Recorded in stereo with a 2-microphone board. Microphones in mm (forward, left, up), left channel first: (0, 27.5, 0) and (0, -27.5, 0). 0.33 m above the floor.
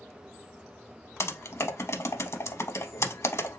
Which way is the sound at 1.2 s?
60° left (ahead or behind).